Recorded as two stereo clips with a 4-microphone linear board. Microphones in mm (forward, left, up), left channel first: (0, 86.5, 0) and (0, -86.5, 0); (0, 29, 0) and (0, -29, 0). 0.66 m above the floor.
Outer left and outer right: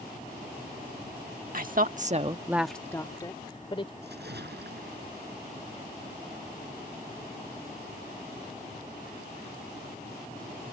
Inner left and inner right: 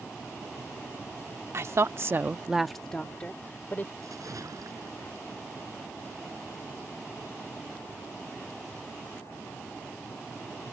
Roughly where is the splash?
Right.